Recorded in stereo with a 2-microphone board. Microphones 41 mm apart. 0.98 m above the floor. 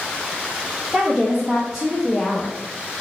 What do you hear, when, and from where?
0.9 s a woman speaking: 15° right (ahead or behind), 1.2 m; by 2.6 s 20° left (ahead or behind), 0.5 m